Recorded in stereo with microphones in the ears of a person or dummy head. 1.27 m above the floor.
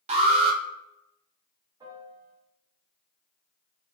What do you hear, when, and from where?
0.1 s an alarm: 35° right (ahead or behind), 0.6 m
1.8 s a piano: 20° right (ahead or behind), 0.7 m